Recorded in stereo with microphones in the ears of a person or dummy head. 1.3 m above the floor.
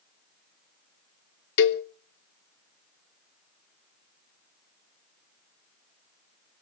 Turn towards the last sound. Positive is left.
turn(degrees=65)  # may be behind; listen again after turning